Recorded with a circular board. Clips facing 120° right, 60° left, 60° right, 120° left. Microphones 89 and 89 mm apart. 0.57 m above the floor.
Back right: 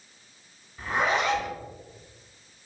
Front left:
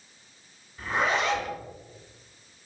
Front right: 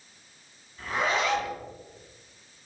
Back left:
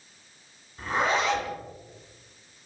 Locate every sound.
0.8 s a zipper: 160° left, 0.9 m